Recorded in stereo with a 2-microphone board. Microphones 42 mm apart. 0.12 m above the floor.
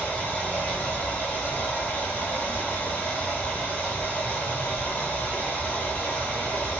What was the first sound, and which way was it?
Running water, 35° left (ahead or behind).